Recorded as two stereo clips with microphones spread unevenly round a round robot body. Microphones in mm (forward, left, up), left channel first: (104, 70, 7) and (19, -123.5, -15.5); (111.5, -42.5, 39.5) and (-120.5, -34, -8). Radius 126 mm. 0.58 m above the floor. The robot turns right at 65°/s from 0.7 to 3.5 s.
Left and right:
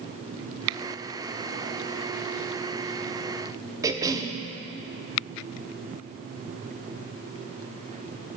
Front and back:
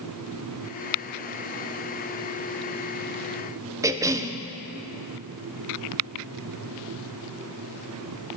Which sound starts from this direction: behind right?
A cough, at 3.8 s.